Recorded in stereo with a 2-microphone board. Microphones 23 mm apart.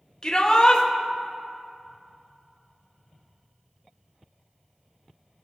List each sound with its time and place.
0.2 s a shout: 25° left (ahead or behind), 1.3 m